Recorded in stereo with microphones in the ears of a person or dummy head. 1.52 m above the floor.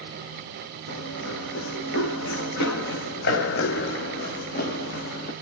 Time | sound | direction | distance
0.9 | running footsteps | 65° left (ahead or behind) | 3.5 m